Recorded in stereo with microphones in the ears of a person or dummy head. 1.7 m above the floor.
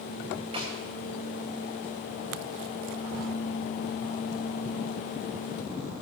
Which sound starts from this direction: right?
A snare drum, at 0.5 s.